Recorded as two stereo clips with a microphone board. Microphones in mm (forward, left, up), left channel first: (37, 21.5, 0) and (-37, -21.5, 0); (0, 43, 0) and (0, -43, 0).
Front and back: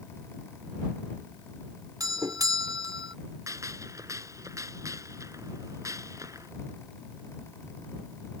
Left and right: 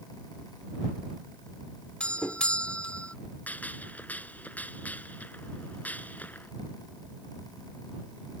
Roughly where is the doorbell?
Behind.